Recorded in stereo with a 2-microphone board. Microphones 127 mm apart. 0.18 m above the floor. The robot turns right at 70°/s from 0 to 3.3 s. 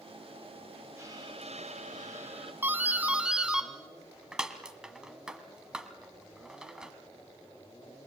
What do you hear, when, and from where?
1.0 s a hiss: 160° right, 4 m; by 2.5 s 50° right, 4 m
2.6 s a doorbell: 20° right (ahead or behind), 1.6 m; by 6.9 s 5° right (ahead or behind), 1.6 m